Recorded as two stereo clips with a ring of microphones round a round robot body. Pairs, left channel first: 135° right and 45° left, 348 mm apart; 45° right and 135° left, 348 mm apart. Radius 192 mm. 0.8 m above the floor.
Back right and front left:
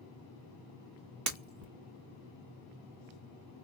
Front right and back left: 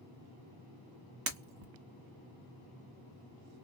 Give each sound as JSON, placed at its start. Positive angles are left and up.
{"t": 1.3, "sound": "breaking glass", "azimuth_deg": 85, "distance_m": 1.3}